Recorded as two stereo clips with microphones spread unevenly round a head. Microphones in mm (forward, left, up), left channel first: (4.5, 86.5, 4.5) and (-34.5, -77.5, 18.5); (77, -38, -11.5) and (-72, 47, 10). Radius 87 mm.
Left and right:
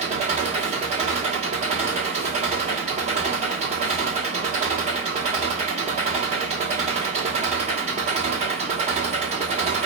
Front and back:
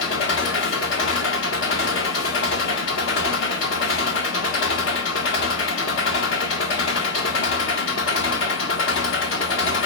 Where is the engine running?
45° right, 1.4 m.